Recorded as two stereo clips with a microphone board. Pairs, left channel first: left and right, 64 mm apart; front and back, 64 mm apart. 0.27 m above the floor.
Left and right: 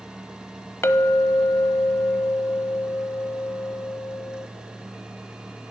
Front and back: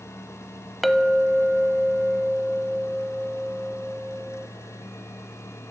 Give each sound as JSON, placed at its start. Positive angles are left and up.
{"t": 0.8, "sound": "a clink", "azimuth_deg": 90, "distance_m": 0.6}